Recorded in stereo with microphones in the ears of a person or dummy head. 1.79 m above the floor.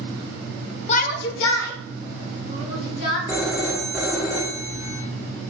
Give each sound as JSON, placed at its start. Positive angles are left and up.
{"t": 0.9, "sound": "a shout", "side_deg": 35, "distance_m": 0.5}
{"t": 3.3, "sound": "a phone ringing", "side_deg": -10, "distance_m": 1.5}